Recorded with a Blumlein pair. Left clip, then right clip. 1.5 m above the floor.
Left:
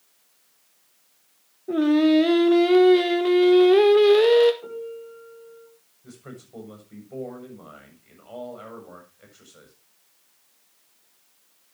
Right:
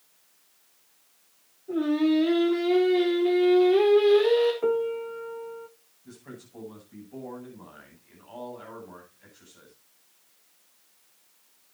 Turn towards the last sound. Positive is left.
turn(degrees=55)